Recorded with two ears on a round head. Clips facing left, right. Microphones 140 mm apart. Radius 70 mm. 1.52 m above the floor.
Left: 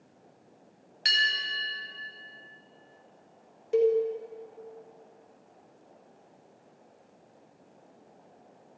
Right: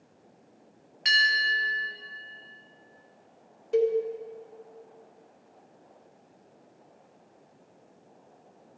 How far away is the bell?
About 3.5 m.